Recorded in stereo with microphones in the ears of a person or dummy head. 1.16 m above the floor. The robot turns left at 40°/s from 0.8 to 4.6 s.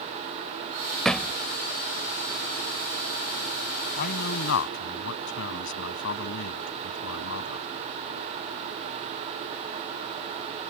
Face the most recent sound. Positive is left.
turn(degrees=75)  # may be behind; listen again after turning